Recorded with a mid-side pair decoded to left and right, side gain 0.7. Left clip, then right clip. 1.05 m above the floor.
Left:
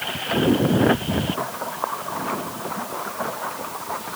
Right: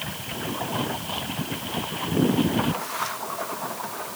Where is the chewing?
No chewing in this recording.